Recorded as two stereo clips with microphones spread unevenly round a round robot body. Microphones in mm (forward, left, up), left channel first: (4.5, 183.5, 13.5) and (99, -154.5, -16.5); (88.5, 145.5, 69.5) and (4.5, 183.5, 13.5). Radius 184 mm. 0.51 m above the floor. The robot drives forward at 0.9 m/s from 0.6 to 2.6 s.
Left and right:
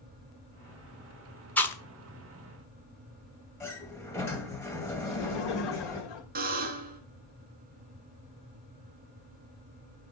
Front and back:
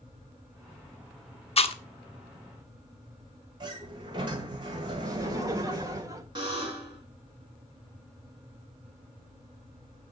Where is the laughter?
130° left, 2.5 m.